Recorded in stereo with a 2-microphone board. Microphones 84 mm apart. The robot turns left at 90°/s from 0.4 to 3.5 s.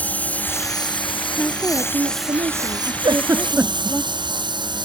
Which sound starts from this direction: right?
A giggle, at 3.0 s.